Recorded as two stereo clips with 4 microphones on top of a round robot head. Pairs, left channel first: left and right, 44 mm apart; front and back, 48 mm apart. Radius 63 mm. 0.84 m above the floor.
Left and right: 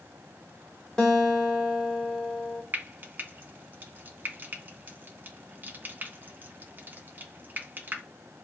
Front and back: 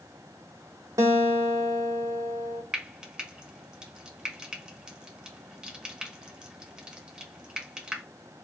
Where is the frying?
110° right, 1.1 m.